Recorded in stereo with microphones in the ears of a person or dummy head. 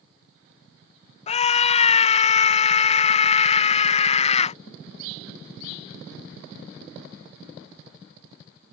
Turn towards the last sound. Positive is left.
turn(degrees=35)  # may be behind; listen again after turning